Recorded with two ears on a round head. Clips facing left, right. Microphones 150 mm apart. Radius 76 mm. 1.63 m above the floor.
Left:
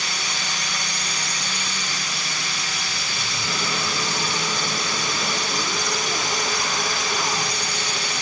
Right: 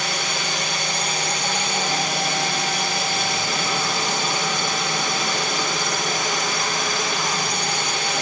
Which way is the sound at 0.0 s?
45° right (ahead or behind).